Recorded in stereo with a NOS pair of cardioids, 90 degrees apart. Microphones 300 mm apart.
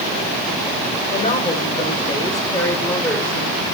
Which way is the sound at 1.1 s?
25° left.